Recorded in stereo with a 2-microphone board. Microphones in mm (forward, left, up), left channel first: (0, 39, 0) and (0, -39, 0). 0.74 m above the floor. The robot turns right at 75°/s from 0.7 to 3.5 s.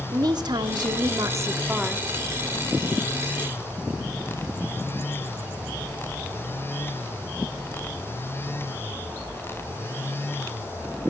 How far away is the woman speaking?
About 1.5 m.